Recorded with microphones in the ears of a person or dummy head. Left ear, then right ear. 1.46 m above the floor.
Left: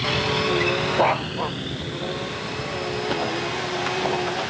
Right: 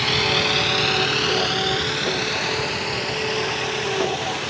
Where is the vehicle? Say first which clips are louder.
Right 3 dB; 20° right (ahead or behind); by 4.5 s 85° right.